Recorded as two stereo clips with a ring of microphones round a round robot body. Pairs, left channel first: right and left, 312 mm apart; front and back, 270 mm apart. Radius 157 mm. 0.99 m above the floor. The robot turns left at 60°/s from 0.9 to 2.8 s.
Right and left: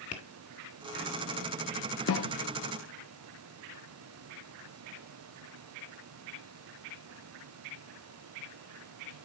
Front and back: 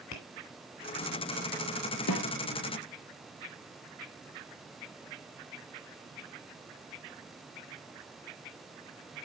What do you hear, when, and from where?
0.1 s tapping: 40° right, 1.8 m
2.1 s a snare drum: 40° right, 0.7 m; by 2.4 s 55° right, 0.7 m